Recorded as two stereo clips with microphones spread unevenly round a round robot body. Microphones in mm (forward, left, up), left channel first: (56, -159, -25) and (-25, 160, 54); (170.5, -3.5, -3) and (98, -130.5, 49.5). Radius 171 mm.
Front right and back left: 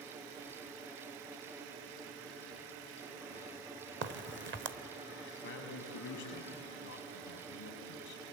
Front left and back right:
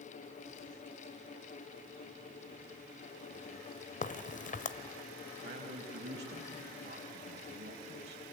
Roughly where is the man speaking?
Behind right.